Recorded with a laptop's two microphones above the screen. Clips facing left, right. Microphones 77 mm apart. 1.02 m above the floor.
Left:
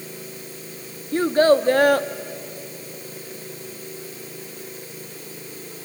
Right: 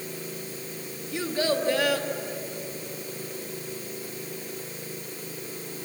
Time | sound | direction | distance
1.1 | a child speaking | 45° left (ahead or behind) | 1.0 m